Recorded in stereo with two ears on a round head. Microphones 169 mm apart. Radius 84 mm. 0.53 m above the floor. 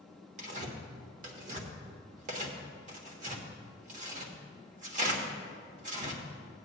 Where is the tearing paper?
40° right (ahead or behind), 1.4 m.